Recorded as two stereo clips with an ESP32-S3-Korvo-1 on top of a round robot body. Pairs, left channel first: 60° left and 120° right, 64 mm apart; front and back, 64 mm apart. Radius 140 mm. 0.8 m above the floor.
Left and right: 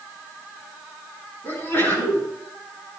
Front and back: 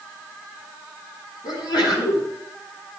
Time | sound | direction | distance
1.4 | a sneeze | straight ahead | 9.5 m